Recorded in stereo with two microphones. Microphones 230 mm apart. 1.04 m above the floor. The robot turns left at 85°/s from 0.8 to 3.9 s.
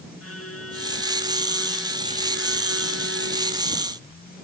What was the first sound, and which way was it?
A violin, 80° left.